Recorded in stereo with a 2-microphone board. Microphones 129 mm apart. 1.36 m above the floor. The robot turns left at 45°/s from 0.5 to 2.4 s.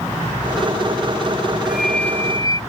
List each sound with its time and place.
1.6 s a flute: 175° right; by 2.6 s 150° left